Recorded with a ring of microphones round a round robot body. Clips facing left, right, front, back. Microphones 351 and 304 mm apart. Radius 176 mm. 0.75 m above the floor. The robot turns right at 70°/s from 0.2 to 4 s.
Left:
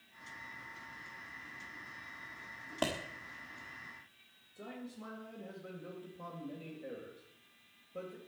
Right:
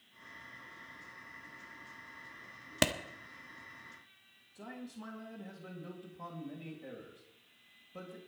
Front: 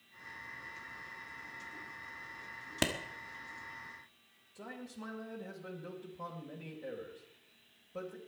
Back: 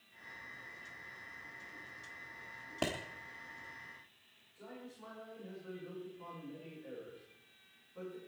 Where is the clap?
60° right, 1.2 m; by 2.9 s 50° right, 1.2 m.